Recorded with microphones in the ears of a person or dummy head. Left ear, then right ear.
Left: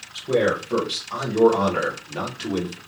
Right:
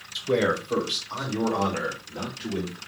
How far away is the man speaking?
About 1.3 m.